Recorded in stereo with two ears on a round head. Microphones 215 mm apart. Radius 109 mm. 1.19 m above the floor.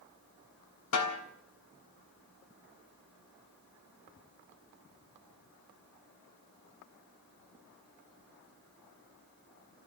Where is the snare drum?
70° left (ahead or behind), 3 m.